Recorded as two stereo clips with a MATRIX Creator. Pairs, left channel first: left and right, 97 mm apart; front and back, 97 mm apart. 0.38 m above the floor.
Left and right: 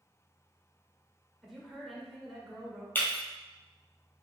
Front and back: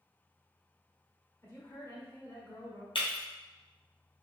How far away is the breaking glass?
About 1.5 m.